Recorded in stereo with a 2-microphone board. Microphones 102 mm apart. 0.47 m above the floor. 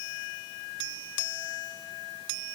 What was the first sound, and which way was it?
Only background noise.